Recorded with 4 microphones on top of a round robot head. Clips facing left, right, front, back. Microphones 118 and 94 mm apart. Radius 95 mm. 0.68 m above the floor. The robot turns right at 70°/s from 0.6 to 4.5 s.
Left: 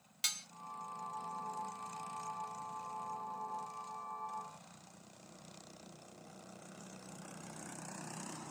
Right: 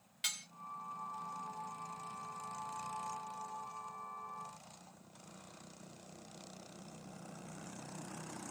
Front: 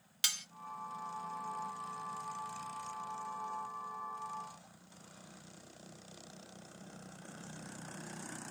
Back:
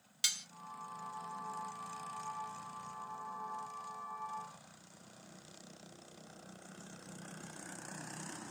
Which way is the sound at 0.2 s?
35° left.